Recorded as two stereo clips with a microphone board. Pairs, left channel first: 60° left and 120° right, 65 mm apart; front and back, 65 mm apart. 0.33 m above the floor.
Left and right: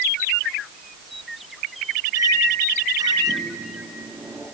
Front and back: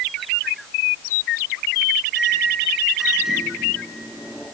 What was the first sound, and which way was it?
A microwave, 100° right.